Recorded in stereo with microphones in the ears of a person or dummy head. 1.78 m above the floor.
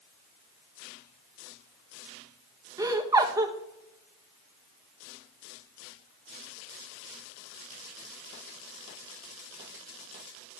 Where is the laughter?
15° right (ahead or behind), 1.6 m.